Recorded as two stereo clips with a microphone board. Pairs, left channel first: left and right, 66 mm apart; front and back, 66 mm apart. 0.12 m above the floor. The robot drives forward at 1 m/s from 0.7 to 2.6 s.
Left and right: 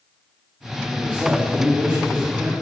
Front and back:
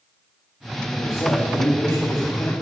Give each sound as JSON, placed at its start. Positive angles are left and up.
{"t": 0.9, "sound": "a man speaking", "azimuth_deg": -35, "distance_m": 4.0}